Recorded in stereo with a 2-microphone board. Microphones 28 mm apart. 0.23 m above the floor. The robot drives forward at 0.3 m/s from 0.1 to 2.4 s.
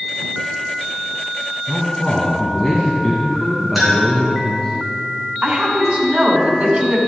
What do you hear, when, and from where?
1.7 s a man speaking: 15° left (ahead or behind), 1.8 m; by 4.8 s 20° left (ahead or behind), 1.6 m
3.8 s a clink: 5° right (ahead or behind), 3 m
5.4 s a woman speaking: 50° right (ahead or behind), 2 m